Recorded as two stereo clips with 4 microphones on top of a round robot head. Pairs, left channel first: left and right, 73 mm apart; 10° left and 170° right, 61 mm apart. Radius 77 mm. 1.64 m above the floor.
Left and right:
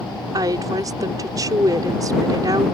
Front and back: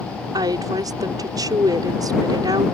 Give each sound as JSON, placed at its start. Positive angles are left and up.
{"t": 0.3, "sound": "a woman speaking", "azimuth_deg": -140}